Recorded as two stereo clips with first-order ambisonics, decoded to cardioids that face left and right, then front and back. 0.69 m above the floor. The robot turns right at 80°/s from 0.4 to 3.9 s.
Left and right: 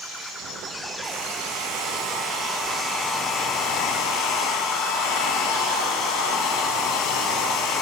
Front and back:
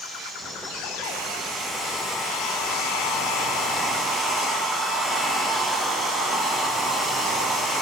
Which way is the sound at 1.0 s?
150° right.